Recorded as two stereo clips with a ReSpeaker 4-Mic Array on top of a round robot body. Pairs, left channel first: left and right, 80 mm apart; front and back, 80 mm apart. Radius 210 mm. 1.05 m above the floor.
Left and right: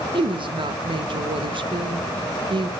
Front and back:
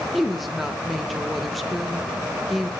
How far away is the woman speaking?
About 1.6 m.